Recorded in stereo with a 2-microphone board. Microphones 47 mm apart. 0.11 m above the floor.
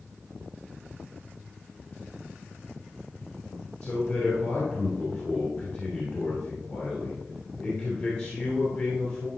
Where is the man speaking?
45° left (ahead or behind), 2.5 m.